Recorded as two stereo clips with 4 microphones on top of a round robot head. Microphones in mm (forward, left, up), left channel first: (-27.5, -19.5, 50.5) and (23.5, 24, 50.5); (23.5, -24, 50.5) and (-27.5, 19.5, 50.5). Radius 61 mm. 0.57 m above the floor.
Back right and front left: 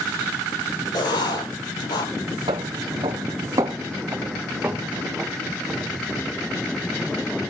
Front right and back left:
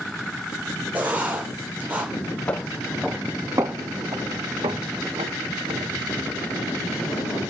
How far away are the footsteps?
About 1.4 m.